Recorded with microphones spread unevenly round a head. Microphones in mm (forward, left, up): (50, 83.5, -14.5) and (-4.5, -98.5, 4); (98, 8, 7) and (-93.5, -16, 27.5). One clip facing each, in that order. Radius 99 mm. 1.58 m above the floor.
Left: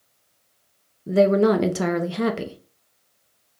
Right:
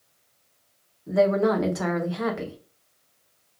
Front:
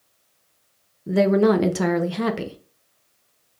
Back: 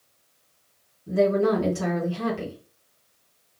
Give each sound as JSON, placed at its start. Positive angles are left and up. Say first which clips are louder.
{"t": 1.1, "sound": "a woman speaking", "louder": "left 4 dB, front 4 dB", "azimuth_deg": 20, "distance_m": 0.5}